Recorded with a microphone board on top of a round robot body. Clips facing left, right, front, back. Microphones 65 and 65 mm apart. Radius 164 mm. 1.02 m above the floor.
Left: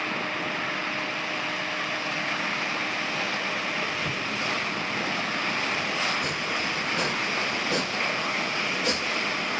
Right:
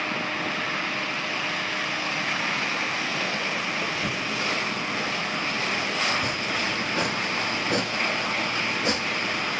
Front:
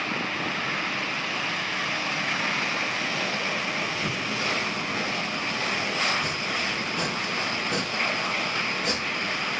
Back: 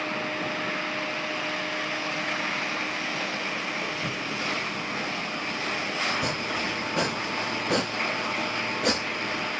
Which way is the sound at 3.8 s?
110° right.